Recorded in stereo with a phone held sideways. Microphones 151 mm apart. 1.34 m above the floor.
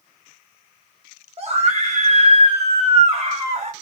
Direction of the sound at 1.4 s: 40° right (ahead or behind).